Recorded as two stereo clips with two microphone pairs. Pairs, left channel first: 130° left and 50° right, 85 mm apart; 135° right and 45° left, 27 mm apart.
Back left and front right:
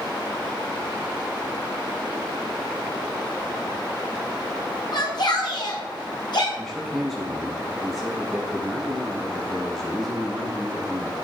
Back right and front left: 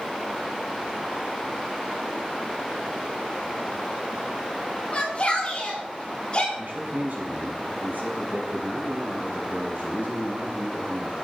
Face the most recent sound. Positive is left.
turn(degrees=45)